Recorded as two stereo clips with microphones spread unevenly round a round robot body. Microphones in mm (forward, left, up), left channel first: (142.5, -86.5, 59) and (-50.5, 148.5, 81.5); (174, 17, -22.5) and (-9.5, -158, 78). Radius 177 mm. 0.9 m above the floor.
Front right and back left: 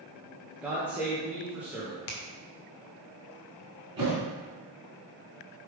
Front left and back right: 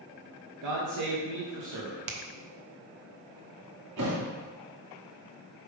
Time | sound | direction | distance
0.6 | a man speaking | 140° right | 1.2 m
2.1 | a finger snap | 100° right | 1.1 m
4.0 | a thud | 155° right | 2.5 m